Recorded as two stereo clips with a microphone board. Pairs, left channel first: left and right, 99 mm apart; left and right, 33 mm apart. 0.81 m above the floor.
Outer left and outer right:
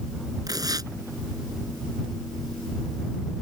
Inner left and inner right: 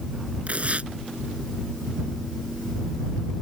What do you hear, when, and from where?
0.5 s tearing paper: 40° right (ahead or behind)